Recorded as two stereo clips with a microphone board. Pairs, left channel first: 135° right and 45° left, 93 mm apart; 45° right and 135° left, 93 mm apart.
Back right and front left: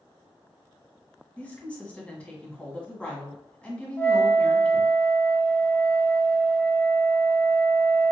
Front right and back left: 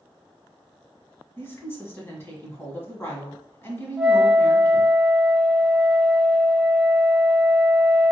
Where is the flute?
160° right, 0.6 m.